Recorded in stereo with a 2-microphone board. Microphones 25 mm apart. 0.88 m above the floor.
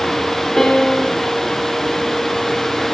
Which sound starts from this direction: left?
A piano, at 0.6 s.